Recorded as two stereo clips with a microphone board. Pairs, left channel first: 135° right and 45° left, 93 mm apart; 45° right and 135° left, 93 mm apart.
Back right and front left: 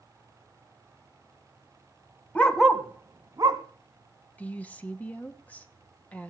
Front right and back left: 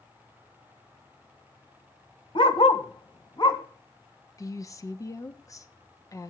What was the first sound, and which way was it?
A dog barking, 65° right.